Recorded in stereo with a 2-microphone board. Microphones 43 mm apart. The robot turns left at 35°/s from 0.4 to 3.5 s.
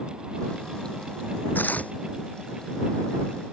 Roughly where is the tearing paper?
Left.